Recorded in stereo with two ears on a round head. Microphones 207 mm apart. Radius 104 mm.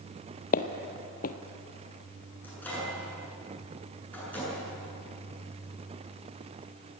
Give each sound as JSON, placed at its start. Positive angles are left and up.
{"t": 0.5, "sound": "footsteps", "side_deg": 40, "distance_m": 1.2}
{"t": 2.4, "sound": "a microwave", "side_deg": 5, "distance_m": 9.0}